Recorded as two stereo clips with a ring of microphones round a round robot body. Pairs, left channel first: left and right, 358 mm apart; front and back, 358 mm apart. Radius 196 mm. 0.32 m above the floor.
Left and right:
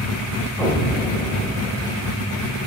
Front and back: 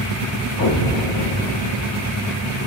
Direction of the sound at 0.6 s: 15° left.